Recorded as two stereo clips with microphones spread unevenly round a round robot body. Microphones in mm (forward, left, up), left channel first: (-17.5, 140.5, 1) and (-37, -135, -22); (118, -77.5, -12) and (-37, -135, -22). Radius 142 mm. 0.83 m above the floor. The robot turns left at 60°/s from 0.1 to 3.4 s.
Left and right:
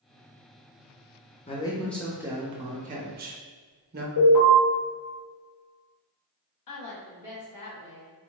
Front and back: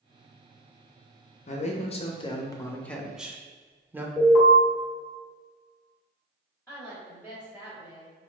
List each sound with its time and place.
1.5 s a man speaking: 25° left, 0.5 m; by 4.1 s 95° right, 0.5 m
4.2 s an alarm: 90° left, 1.9 m
6.7 s a woman speaking: 105° left, 1.3 m